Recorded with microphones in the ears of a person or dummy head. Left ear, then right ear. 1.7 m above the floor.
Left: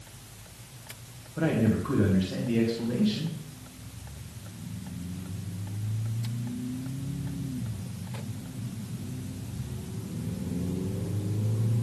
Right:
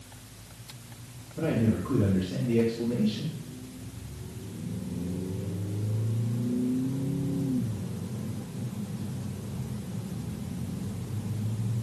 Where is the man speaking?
75° left (ahead or behind), 2.5 m.